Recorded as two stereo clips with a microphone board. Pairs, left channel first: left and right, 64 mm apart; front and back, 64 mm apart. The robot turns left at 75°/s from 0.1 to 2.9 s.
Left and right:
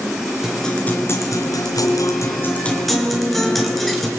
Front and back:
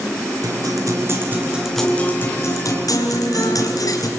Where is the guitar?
170° right, 4 m; by 4.1 s straight ahead, 4 m.